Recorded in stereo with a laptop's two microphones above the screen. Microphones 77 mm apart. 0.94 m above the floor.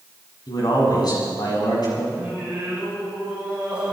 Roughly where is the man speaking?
Left.